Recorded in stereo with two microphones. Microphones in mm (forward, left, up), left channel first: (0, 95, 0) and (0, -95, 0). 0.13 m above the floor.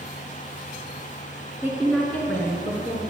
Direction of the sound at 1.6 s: 10° right (ahead or behind).